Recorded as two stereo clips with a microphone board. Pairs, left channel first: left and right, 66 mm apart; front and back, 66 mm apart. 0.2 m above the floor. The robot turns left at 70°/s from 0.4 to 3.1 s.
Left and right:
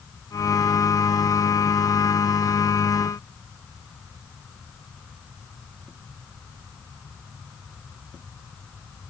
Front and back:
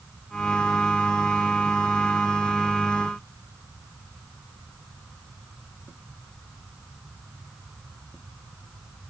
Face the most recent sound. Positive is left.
No sound to turn to.